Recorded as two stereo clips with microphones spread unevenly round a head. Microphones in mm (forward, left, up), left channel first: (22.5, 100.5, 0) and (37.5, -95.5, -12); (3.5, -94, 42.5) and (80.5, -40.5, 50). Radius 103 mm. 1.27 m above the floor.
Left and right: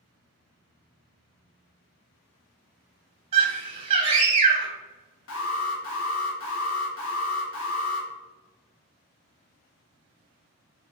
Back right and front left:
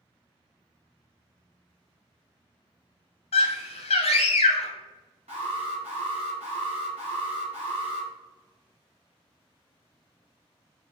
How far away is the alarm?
About 1.1 m.